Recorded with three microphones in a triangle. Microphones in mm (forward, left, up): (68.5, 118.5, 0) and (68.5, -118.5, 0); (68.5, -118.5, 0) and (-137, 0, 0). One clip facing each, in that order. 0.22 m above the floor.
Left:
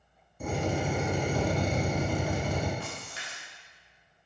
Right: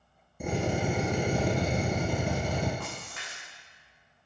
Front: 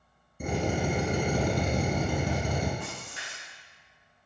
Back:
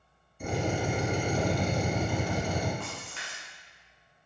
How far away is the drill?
About 0.9 m.